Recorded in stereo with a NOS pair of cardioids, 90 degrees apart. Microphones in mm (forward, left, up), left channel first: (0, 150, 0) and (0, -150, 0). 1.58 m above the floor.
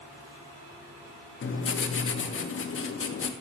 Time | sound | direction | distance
1.4 | writing | 45° left | 2.5 m